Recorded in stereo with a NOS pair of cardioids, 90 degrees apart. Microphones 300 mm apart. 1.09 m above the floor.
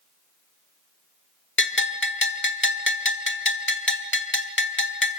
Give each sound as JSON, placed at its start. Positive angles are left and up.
{"t": 1.6, "sound": "a bell", "azimuth_deg": 40, "distance_m": 1.5}